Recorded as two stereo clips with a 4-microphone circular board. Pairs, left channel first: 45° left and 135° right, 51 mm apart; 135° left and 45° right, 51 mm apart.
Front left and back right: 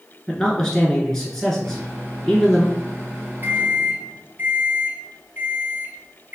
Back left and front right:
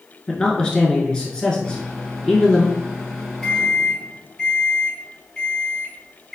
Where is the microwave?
145° right, 1.8 m.